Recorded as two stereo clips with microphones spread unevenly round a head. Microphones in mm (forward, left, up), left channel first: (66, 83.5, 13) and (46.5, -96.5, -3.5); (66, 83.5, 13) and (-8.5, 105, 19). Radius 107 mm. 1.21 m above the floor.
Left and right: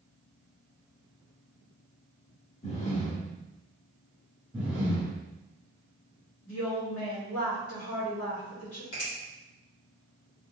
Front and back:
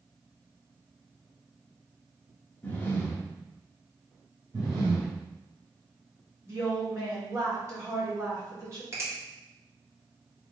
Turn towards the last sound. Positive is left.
turn(degrees=110)